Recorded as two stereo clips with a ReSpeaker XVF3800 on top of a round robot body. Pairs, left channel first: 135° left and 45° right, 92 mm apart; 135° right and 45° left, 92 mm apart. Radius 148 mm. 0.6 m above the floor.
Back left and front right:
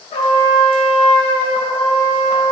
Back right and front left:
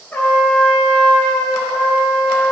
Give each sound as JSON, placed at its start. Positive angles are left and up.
{"t": 0.1, "sound": "a trumpet", "azimuth_deg": 150, "distance_m": 1.1}